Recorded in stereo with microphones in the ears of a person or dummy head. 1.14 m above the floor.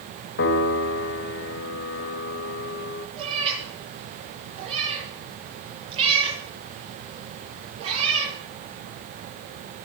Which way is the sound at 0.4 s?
55° left (ahead or behind).